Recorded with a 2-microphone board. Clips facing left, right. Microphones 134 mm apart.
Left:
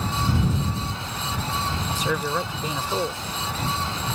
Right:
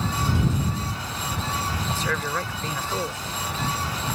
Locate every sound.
1.9 s a man speaking: 15° left (ahead or behind)